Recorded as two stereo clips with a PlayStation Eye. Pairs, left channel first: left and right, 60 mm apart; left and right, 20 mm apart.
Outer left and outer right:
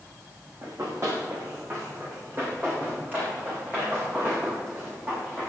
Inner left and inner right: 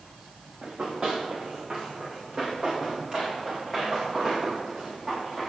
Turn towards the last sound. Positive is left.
turn(degrees=-20)  # may be behind; listen again after turning